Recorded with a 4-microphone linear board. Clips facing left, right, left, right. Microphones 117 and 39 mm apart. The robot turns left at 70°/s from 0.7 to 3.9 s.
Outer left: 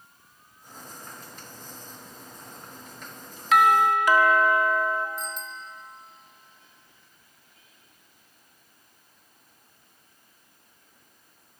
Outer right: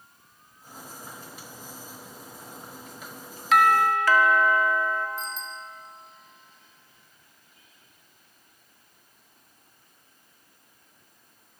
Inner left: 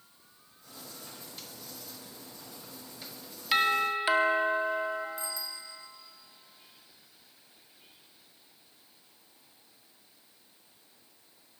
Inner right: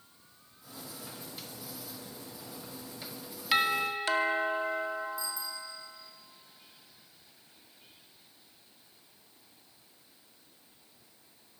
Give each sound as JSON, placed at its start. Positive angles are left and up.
{"t": 3.5, "sound": "a doorbell", "side_deg": 0, "distance_m": 1.5}
{"t": 5.2, "sound": "a bicycle bell", "side_deg": 65, "distance_m": 2.0}